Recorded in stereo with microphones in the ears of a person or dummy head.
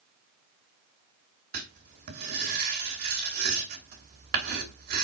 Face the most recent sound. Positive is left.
turn(degrees=-50)  # may be behind; listen again after turning